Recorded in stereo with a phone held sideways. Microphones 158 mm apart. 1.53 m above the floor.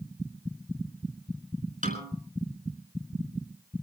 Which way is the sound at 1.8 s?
55° right (ahead or behind).